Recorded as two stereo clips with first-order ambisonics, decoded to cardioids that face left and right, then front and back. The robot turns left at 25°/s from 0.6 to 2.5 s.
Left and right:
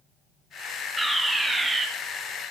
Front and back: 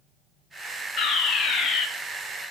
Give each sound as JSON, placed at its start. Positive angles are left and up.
{"t": 1.0, "sound": "a fire alarm", "azimuth_deg": -5, "distance_m": 1.0}